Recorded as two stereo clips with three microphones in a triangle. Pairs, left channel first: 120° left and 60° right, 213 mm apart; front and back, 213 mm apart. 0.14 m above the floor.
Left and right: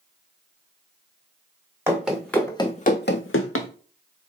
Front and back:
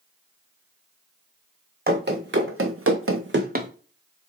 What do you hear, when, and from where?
1.9 s running footsteps: 140° right, 0.9 m; by 3.7 s 125° left, 0.7 m